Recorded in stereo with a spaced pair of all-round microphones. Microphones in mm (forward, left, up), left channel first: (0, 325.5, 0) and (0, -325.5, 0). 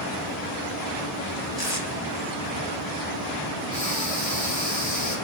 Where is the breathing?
30° left (ahead or behind), 4.5 m.